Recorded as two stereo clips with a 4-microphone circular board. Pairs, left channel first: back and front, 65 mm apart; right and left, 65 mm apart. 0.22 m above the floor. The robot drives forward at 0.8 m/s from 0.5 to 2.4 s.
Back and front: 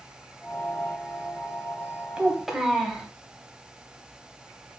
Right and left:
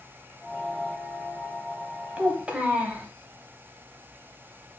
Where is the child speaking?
45° left, 0.8 m; by 3.1 s 80° left, 0.7 m.